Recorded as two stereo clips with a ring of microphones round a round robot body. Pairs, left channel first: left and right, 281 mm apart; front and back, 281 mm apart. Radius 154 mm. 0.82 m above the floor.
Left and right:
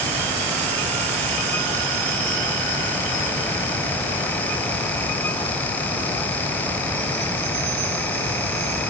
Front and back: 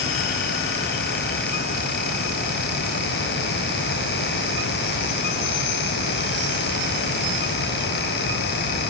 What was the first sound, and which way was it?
Only background noise.